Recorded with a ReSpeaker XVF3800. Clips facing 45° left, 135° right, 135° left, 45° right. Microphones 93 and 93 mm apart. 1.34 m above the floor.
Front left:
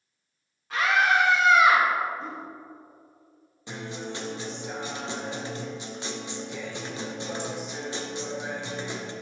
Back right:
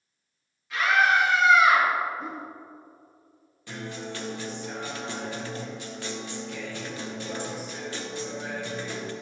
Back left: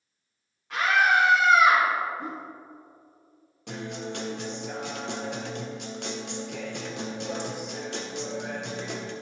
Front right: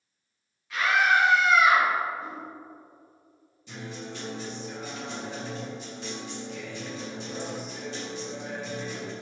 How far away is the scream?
About 2 m.